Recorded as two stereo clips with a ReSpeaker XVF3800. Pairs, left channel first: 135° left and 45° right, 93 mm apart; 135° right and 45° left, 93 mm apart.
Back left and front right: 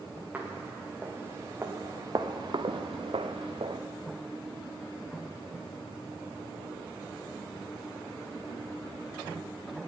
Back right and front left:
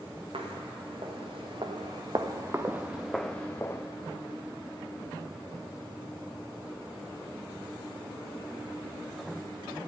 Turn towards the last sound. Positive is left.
turn(degrees=-75)